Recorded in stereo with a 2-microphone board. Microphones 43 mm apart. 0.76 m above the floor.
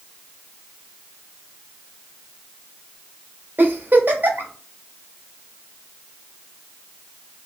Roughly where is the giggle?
Right.